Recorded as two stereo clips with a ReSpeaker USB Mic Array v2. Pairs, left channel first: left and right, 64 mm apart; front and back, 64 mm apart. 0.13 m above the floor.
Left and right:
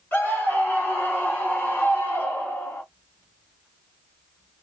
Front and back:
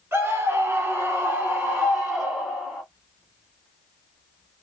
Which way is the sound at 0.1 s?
140° left.